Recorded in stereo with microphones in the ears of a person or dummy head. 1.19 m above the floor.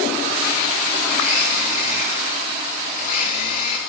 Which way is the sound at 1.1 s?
55° left (ahead or behind).